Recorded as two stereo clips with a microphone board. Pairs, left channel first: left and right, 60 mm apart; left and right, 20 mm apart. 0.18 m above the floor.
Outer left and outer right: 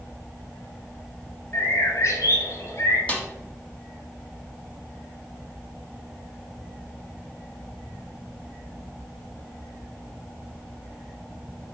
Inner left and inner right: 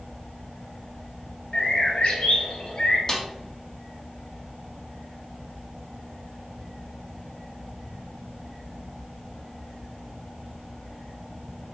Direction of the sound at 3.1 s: 25° left (ahead or behind).